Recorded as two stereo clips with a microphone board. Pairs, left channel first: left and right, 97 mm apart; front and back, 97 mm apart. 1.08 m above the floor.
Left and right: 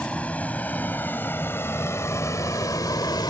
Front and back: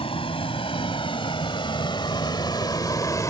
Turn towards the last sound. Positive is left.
turn(degrees=55)